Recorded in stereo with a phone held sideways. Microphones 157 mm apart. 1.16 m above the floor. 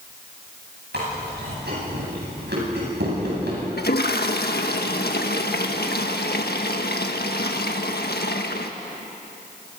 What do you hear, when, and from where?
0.9 s chewing: 85° right, 9 m
3.8 s a toilet flushing: 75° left (ahead or behind), 1.5 m